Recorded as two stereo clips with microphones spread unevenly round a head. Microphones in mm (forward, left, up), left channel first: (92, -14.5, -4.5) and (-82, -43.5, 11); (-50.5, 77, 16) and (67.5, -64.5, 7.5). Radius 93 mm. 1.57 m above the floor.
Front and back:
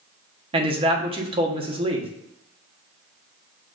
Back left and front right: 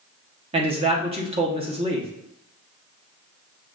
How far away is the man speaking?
About 1.1 m.